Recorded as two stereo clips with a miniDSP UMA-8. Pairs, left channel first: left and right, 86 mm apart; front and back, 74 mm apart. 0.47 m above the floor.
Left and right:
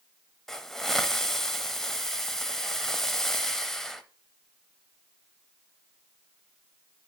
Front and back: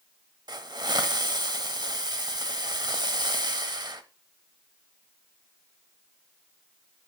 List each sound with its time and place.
0.5 s a hiss: 175° left, 1.0 m